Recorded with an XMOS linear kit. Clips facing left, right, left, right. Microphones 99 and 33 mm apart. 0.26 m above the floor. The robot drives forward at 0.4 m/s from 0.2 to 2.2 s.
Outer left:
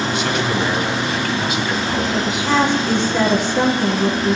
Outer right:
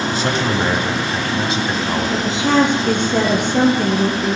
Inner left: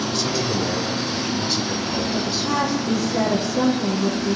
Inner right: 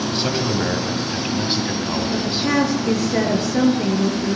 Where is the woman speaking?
55° right (ahead or behind), 4 m.